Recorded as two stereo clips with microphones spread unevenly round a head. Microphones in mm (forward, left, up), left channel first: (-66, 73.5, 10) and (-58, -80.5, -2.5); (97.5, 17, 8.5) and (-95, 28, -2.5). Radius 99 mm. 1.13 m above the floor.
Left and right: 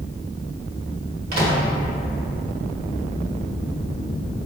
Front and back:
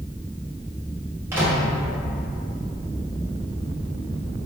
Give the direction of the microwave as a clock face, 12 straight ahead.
3 o'clock.